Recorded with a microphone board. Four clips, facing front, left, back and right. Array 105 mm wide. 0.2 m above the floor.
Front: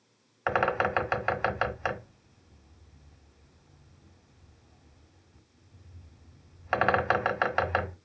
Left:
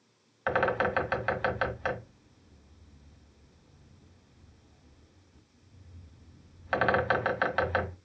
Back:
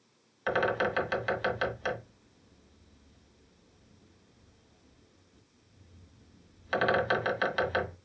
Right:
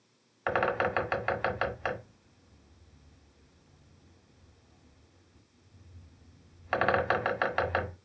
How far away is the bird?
About 1.6 m.